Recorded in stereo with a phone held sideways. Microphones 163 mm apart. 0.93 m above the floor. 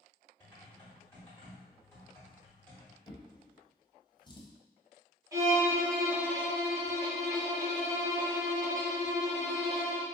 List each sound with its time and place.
0.4 s typing on a keyboard: 15° left (ahead or behind), 1.1 m
3.1 s a drawer: 30° left (ahead or behind), 0.6 m
5.3 s a violin: 20° right (ahead or behind), 0.8 m